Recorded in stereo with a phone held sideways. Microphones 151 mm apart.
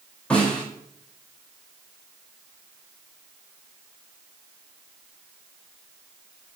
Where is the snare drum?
10° left (ahead or behind), 3.5 m.